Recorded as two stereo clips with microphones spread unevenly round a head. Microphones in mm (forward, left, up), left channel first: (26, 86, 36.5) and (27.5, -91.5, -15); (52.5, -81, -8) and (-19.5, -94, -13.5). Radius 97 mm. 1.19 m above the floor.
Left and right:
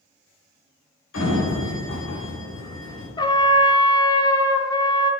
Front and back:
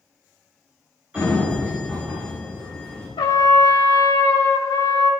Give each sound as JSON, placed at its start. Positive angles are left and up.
{"t": 1.1, "sound": "a sliding door", "azimuth_deg": 105, "distance_m": 4.0}
{"t": 3.2, "sound": "a trumpet", "azimuth_deg": 15, "distance_m": 1.0}